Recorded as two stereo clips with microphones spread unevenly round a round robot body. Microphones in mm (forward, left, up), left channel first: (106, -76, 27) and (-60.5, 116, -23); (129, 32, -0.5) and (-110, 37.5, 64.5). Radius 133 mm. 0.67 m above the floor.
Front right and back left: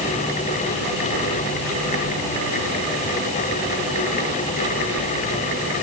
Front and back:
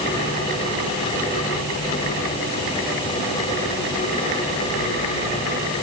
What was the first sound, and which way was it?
Only background noise.